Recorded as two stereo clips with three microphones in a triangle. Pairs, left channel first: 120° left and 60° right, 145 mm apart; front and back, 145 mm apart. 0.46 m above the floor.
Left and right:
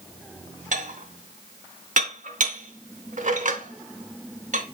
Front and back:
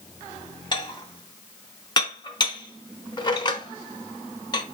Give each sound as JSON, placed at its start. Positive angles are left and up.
{"t": 0.7, "sound": "dishes clattering", "azimuth_deg": -55, "distance_m": 0.8}